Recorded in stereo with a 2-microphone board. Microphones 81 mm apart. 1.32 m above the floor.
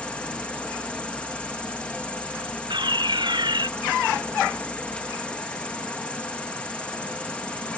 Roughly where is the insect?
Centre.